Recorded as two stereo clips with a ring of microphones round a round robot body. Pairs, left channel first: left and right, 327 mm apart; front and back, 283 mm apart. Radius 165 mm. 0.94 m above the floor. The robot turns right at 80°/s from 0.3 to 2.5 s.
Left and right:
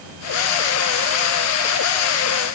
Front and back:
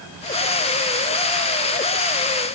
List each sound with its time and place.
Only background noise.